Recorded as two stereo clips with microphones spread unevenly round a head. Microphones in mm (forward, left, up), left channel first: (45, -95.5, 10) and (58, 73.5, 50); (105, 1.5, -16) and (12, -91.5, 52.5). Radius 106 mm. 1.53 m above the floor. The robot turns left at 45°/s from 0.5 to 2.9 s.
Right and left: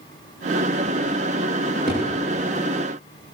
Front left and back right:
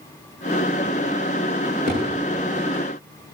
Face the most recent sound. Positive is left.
turn(degrees=145)